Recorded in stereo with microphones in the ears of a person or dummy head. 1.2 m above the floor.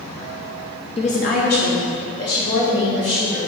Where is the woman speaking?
25° left (ahead or behind), 0.6 m; by 3.4 s 60° left (ahead or behind), 3 m.